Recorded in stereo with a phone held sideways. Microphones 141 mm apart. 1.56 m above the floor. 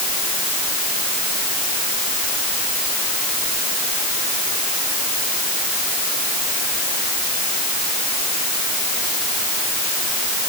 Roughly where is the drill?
I don't hear a drill.